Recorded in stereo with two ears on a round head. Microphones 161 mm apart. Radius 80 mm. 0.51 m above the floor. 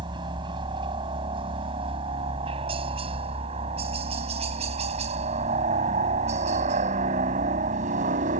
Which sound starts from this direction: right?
A helicopter, at 0.0 s.